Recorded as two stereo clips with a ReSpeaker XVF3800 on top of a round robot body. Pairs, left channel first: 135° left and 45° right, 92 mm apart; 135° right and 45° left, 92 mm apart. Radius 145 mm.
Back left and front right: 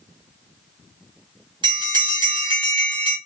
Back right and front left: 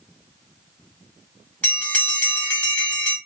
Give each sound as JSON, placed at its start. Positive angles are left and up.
{"t": 1.6, "sound": "a bell", "azimuth_deg": -65, "distance_m": 1.8}